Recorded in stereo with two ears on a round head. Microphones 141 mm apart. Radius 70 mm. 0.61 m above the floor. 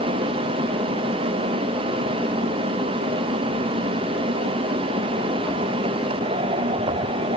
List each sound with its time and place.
Only background noise.